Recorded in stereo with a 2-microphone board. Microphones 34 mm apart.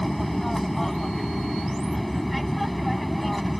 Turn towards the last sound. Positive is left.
turn(degrees=0)  # may be behind; listen again after turning